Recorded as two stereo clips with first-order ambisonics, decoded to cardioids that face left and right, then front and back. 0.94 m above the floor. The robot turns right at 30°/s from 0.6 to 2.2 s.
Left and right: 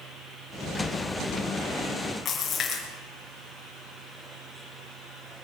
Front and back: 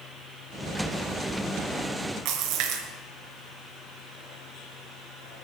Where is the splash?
155° left, 4 m.